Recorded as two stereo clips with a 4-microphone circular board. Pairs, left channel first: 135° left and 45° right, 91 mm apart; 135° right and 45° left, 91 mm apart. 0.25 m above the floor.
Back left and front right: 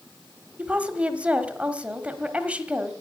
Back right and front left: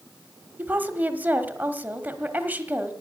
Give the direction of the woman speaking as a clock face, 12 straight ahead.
12 o'clock.